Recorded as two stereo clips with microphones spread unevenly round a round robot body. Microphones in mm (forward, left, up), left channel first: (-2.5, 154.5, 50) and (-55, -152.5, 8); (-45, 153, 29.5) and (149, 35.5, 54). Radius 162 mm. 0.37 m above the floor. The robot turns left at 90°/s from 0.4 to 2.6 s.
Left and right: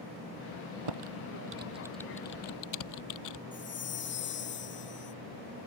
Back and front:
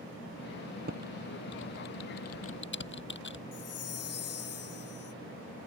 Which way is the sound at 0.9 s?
95° right.